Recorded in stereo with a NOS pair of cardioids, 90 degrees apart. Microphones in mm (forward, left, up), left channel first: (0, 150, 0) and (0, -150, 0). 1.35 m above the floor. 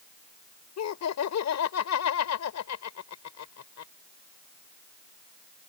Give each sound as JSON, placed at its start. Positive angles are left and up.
{"t": 0.8, "sound": "laughter", "azimuth_deg": 55}